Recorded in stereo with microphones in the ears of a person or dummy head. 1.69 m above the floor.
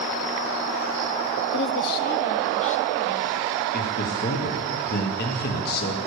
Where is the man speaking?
55° left (ahead or behind), 1.4 m.